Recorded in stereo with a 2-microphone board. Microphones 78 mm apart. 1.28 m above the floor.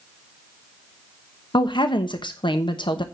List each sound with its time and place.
1.5 s a woman speaking: 75° left (ahead or behind), 1.0 m